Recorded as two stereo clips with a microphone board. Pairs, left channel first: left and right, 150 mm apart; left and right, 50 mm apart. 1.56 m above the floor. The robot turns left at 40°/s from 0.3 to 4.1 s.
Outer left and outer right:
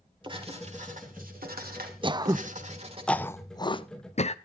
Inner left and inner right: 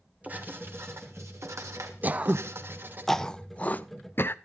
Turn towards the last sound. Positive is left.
turn(degrees=45)  # may be behind; listen again after turning